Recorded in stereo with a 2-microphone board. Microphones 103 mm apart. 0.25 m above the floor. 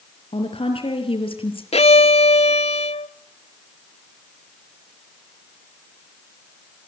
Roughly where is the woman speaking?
Left.